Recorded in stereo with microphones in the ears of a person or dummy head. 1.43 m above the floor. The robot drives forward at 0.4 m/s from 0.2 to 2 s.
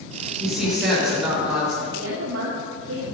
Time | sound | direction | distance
0.4 | a woman speaking | 5° right (ahead or behind) | 6.5 m
1.8 | a woman speaking | 75° right (ahead or behind) | 2.5 m